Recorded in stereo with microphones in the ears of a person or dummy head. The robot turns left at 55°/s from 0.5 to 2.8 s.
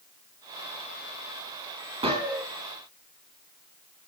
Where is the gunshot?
30° right (ahead or behind), 3.5 m; by 2.5 s 5° right (ahead or behind), 3.5 m.